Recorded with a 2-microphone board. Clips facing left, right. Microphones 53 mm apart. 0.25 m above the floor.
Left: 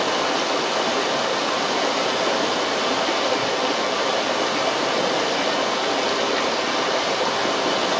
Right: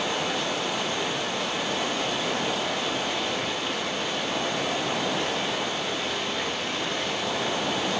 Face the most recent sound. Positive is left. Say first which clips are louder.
# left 6 dB
turn(degrees=85)